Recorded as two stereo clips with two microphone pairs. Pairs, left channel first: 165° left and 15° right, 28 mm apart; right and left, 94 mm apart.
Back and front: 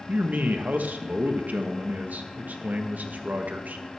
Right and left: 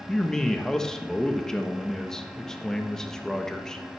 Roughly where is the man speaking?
Ahead.